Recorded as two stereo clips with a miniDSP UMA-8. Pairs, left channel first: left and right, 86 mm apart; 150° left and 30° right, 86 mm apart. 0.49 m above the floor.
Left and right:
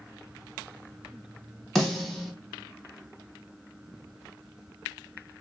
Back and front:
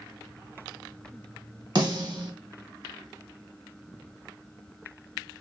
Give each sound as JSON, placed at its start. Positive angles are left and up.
{"t": 1.8, "sound": "a snare drum", "azimuth_deg": 5, "distance_m": 0.9}